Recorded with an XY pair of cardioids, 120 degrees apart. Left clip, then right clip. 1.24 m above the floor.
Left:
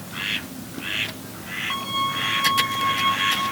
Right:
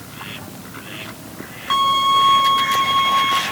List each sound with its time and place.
1.7 s a violin: 45° right, 1.1 m